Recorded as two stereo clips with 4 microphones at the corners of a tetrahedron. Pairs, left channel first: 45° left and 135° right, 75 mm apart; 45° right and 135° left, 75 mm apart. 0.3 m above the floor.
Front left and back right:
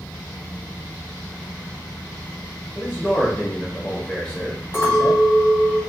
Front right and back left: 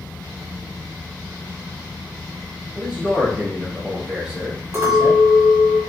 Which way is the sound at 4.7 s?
90° left.